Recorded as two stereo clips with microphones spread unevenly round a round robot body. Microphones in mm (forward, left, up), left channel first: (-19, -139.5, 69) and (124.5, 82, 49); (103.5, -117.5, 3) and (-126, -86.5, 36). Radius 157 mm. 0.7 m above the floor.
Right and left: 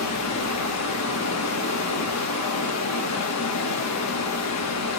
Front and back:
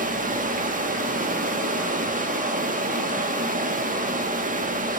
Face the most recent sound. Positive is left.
turn(degrees=-130)